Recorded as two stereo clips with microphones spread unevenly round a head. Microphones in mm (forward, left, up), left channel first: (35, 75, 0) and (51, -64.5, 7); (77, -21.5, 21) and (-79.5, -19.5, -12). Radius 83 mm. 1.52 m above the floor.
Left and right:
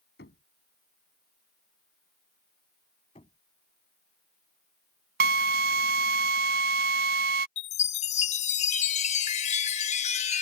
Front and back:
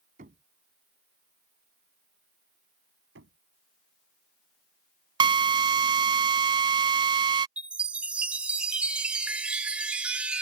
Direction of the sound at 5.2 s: 120° right.